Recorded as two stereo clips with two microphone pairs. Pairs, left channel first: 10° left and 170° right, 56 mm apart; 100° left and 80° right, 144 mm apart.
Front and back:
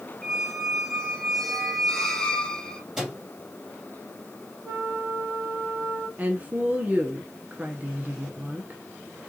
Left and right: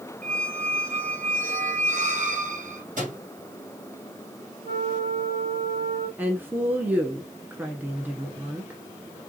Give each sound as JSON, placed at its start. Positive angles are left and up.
{"t": 0.2, "sound": "a squeak", "azimuth_deg": -70, "distance_m": 1.3}
{"t": 3.0, "sound": "a microwave", "azimuth_deg": -90, "distance_m": 2.5}
{"t": 4.6, "sound": "a flute", "azimuth_deg": -105, "distance_m": 1.9}
{"t": 6.2, "sound": "a woman speaking", "azimuth_deg": -140, "distance_m": 1.1}